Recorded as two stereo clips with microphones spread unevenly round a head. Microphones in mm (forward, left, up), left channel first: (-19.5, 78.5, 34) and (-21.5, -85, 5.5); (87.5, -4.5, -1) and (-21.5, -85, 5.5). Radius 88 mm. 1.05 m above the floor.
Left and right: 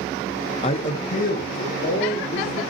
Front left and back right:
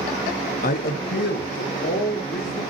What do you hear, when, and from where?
0.6 s a man speaking: 30° left, 0.7 m; by 2.6 s 45° left, 3 m